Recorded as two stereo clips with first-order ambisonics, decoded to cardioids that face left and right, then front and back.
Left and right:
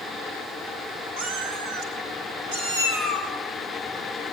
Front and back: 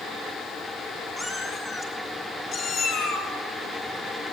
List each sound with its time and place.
1.2 s a cat meowing: 85° right, 4.5 m; by 3.3 s 50° right, 4.5 m